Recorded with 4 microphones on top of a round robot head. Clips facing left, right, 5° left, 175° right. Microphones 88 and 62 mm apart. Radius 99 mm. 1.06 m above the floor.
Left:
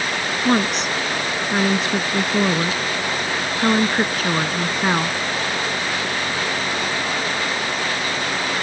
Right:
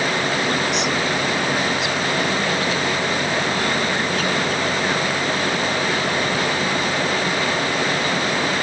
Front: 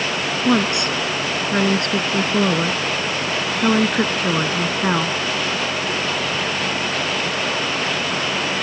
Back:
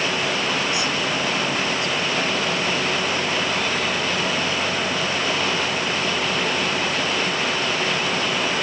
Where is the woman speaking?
35° left.